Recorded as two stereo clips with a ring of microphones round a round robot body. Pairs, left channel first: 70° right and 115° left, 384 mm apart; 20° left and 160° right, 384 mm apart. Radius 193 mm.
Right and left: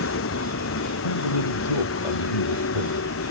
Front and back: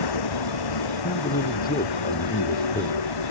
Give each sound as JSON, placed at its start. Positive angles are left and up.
{"t": 0.0, "sound": "a vehicle", "azimuth_deg": -10}
{"t": 1.0, "sound": "a man speaking", "azimuth_deg": -45}